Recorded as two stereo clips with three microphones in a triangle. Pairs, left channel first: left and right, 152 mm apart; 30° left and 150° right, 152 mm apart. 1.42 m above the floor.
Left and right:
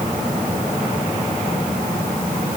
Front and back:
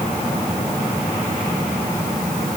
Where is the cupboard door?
No cupboard door in this recording.